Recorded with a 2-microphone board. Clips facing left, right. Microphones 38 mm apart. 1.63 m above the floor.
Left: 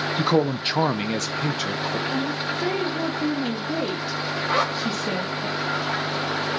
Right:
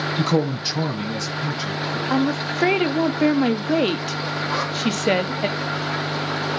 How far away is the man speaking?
About 0.5 m.